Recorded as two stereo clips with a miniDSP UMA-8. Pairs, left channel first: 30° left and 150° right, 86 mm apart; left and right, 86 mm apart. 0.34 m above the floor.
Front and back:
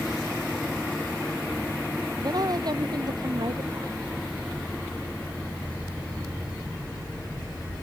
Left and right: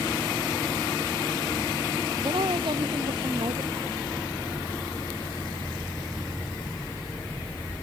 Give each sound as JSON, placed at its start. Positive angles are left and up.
{"t": 2.2, "sound": "a woman speaking", "azimuth_deg": -110}